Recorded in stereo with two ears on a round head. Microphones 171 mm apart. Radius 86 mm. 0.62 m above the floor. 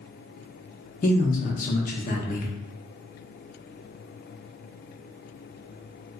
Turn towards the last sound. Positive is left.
turn(degrees=45)  # may be behind; listen again after turning